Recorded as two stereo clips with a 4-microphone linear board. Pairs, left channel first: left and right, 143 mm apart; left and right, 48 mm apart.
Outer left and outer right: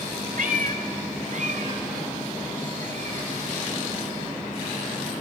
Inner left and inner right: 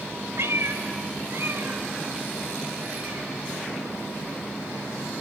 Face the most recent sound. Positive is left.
turn(degrees=-50)  # may be behind; listen again after turning